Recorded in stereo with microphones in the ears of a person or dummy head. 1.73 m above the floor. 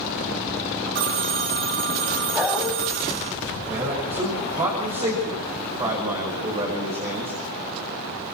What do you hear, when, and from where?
0.9 s a phone ringing: 50° right (ahead or behind), 1.2 m
2.3 s a dog barking: centre (ahead or behind), 4.5 m
3.7 s a man speaking: 30° right (ahead or behind), 7.5 m